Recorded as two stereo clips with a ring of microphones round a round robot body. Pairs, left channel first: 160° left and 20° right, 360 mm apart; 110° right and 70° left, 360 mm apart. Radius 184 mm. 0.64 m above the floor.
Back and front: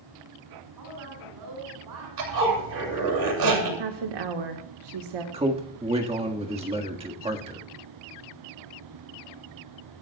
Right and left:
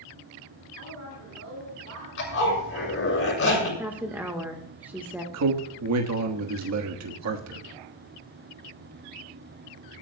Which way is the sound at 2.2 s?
55° right.